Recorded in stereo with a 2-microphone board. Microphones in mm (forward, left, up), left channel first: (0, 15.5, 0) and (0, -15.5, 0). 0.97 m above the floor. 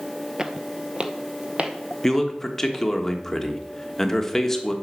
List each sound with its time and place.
0.4 s footsteps: 20° right (ahead or behind), 1.0 m; by 2.8 s 55° right (ahead or behind), 2.5 m
2.0 s a man speaking: 15° left (ahead or behind), 1.3 m